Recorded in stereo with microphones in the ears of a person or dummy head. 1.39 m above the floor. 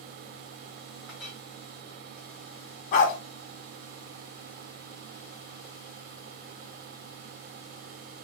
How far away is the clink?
About 2 m.